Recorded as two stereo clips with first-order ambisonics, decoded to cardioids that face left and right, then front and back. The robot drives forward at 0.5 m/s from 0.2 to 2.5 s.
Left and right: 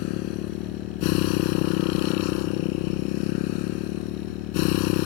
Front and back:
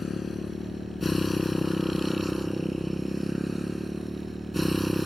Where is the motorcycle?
70° left; by 5.1 s 85° left.